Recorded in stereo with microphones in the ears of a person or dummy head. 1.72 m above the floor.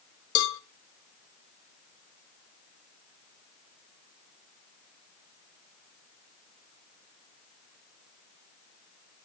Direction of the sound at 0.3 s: 75° left (ahead or behind).